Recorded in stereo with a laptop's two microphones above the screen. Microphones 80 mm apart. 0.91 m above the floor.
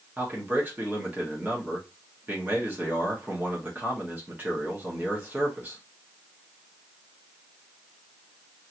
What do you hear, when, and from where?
0.2 s a man speaking: 25° right (ahead or behind), 0.9 m